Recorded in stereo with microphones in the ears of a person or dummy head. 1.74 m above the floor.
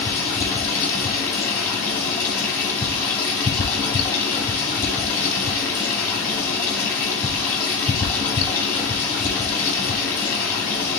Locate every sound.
0.0 s running water: 15° left (ahead or behind), 2 m